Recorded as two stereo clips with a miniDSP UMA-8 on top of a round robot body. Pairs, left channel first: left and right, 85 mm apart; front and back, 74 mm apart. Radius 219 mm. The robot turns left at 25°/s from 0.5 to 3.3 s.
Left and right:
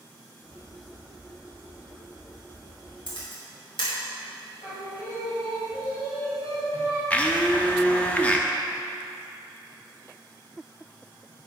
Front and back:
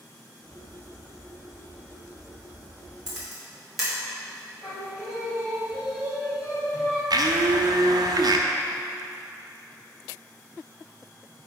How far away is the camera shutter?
About 3 m.